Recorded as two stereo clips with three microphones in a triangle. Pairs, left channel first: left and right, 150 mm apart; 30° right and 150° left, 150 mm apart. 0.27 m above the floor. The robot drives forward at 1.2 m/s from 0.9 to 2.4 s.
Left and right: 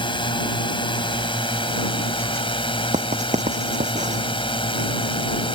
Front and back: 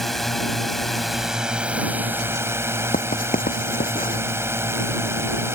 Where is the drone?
55° left; by 5.5 s 90° left.